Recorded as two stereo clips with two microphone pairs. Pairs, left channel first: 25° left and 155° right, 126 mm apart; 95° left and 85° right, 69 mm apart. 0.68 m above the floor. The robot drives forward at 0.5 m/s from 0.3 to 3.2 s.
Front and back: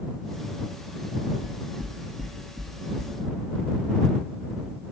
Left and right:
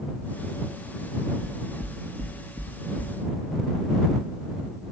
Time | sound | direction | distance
1.4 | knocking | 55° right | 0.7 m